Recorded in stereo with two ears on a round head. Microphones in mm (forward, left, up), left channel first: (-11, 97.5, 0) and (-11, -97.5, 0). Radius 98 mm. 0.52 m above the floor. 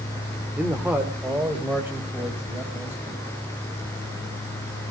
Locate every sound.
0.6 s a man speaking: 5° right (ahead or behind), 1.7 m; by 3.2 s 10° right (ahead or behind), 4.5 m